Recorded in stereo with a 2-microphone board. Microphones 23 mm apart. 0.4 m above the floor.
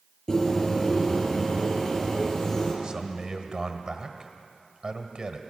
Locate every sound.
0.3 s a bird: 30° left (ahead or behind), 7 m
2.8 s a man speaking: 35° right (ahead or behind), 1.8 m